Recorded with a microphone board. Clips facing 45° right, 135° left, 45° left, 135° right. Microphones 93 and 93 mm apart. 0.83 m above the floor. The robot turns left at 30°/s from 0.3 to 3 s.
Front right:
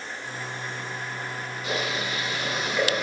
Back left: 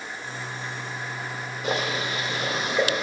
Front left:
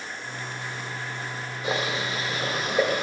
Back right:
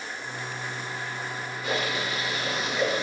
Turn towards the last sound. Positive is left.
turn(degrees=75)